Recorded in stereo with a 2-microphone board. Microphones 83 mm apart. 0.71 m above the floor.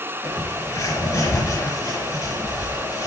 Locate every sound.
0.2 s a bird: 35° left (ahead or behind), 4.5 m